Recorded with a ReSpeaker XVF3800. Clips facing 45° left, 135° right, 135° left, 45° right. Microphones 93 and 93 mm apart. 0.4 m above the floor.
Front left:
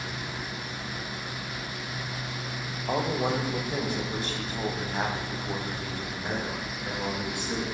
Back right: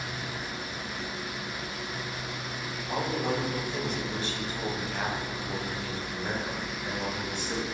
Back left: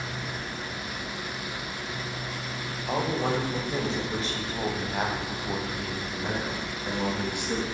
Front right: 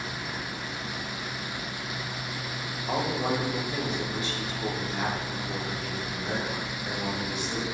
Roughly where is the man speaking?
Ahead left.